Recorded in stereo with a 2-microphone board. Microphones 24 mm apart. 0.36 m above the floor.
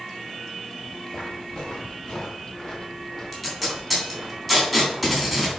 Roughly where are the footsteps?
Left.